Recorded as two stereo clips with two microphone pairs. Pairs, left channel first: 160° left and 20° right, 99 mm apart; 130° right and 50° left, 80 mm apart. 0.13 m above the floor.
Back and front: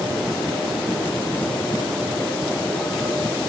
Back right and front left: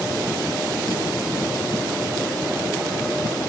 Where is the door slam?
No door slam in this recording.